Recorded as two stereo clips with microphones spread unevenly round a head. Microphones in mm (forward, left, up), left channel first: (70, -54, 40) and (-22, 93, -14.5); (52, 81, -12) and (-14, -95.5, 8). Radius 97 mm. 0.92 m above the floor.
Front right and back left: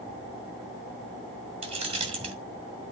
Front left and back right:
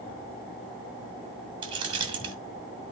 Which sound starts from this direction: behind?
Keys jangling, at 1.6 s.